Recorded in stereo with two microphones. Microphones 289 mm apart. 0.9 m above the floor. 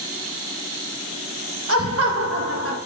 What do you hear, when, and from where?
1.7 s laughter: 55° right (ahead or behind), 0.9 m; by 2.8 s 50° right (ahead or behind), 1.1 m